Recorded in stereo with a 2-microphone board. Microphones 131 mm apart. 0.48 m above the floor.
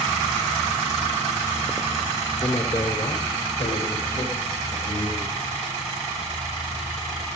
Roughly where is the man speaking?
Left.